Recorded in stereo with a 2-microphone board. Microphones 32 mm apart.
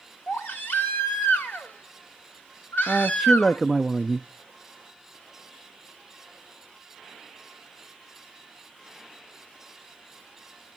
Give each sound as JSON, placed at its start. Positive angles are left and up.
{"t": 0.3, "sound": "a baby crying", "side_deg": 80, "distance_m": 3.0}
{"t": 2.9, "sound": "a man speaking", "side_deg": 0, "distance_m": 0.7}